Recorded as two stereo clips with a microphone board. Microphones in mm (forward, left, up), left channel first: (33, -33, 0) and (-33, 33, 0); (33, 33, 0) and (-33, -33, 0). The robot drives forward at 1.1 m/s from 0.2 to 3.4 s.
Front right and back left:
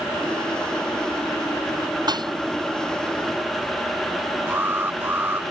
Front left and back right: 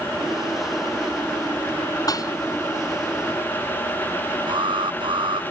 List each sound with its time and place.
2.1 s dishes clattering: 95° left
4.5 s an alarm: 160° right